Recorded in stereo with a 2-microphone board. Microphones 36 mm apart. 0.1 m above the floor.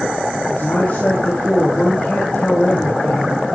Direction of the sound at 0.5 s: 35° left (ahead or behind).